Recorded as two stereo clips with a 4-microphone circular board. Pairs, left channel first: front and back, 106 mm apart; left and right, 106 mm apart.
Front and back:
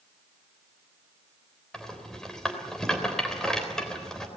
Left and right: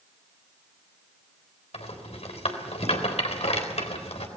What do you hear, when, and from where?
1.7 s a rattle: 85° left, 3.5 m